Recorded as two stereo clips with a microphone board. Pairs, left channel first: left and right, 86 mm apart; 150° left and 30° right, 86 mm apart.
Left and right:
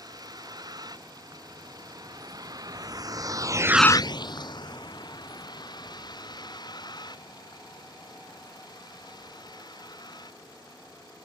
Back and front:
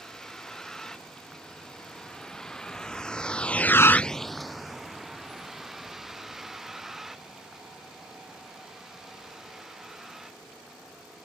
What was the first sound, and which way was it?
A vehicle, 125° right.